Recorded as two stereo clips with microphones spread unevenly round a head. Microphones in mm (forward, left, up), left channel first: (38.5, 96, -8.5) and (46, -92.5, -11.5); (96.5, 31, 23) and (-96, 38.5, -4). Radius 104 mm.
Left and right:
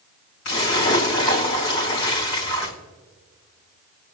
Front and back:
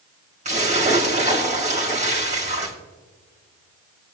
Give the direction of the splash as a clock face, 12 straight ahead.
8 o'clock.